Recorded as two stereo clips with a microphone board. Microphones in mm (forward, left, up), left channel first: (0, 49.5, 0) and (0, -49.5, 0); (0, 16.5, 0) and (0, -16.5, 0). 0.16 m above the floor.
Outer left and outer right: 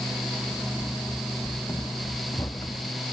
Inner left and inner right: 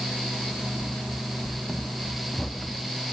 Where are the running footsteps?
25° left (ahead or behind); by 3.0 s 30° left (ahead or behind).